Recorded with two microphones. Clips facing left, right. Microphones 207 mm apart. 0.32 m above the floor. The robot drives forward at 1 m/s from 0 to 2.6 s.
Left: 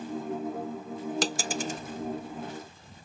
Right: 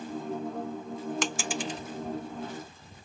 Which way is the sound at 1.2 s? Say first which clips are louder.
Left 1 dB; 40° left (ahead or behind).